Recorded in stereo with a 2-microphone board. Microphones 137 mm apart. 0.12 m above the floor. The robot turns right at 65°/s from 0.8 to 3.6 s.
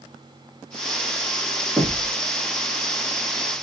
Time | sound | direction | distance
1.8 | knocking | centre (ahead or behind) | 1.2 m